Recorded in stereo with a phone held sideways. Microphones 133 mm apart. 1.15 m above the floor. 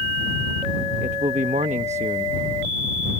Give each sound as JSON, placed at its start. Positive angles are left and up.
{"t": 1.0, "sound": "a man speaking", "side_deg": -60}